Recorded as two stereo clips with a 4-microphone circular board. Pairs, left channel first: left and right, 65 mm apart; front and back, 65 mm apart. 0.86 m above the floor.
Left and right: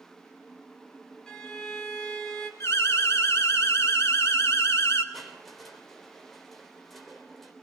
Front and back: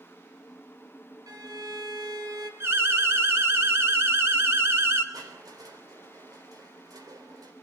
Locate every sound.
1.3 s a violin: 170° left, 3 m
2.6 s an alarm: 135° left, 2.5 m
5.1 s crushing: straight behind, 3.5 m